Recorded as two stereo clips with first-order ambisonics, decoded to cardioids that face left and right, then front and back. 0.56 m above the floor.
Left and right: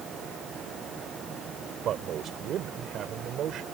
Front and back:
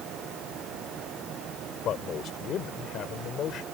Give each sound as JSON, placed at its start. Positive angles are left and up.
{"t": 1.8, "sound": "a man speaking", "azimuth_deg": -45}